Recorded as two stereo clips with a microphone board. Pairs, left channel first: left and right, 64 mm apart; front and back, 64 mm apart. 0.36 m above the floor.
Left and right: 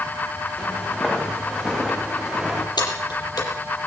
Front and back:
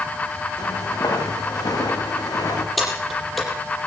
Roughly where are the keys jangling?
Left.